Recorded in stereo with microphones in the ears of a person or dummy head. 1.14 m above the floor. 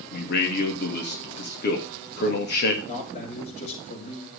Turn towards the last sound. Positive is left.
turn(degrees=45)  # may be behind; listen again after turning